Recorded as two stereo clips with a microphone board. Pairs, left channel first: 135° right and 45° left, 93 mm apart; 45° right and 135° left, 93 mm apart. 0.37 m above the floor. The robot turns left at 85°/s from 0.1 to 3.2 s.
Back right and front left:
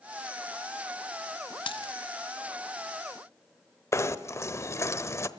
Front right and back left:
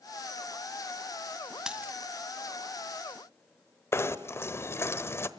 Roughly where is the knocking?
Right.